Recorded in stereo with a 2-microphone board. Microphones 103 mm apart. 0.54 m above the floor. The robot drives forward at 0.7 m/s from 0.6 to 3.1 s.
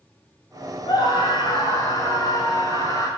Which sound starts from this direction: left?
A scream, at 0.9 s.